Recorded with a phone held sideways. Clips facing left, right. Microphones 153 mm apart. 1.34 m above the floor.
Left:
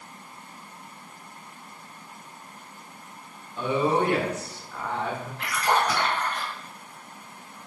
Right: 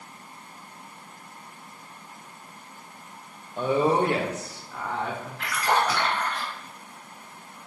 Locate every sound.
3.6 s a woman speaking: 40° right (ahead or behind), 0.5 m; by 5.3 s 5° left (ahead or behind), 0.9 m
5.4 s a splash: 35° left (ahead or behind), 1.4 m